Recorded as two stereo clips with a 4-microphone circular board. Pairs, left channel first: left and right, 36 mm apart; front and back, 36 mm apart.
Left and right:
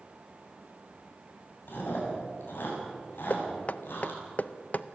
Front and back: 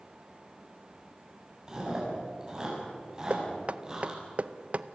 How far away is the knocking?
About 0.6 m.